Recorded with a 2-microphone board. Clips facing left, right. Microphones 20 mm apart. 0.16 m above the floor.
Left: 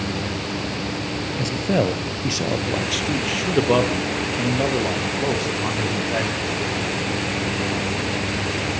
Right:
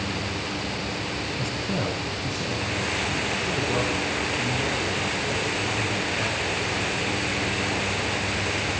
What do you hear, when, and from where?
1.4 s a man speaking: 35° left (ahead or behind), 2.5 m; by 6.5 s 70° left (ahead or behind), 7 m